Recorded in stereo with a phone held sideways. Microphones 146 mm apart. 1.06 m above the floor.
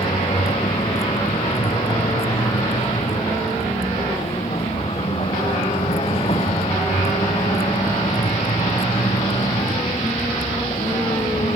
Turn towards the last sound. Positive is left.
turn(degrees=40)  # may be behind; listen again after turning